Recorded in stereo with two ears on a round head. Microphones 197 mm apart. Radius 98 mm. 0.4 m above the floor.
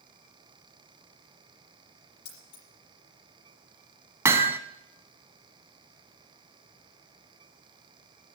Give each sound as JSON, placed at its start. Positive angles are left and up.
{"t": 2.2, "sound": "keys jangling", "side_deg": 85, "distance_m": 7.0}
{"t": 4.2, "sound": "hammering", "side_deg": -15, "distance_m": 0.8}